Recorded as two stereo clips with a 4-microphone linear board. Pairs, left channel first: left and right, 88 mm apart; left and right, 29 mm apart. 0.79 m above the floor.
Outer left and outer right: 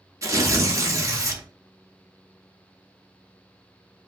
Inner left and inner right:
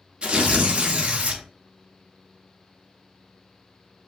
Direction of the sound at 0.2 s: 35° right (ahead or behind).